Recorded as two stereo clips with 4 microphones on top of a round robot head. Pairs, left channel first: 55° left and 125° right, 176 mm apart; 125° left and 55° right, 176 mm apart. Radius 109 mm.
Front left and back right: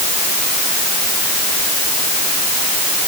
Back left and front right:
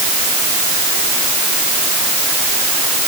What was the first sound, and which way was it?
Only background noise.